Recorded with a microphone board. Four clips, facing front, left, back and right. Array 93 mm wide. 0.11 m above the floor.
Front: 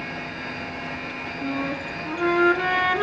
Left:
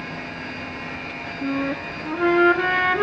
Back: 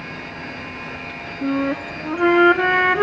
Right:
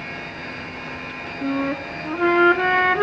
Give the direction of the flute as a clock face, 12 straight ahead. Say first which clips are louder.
Right 1 dB, back 7 dB; 6 o'clock.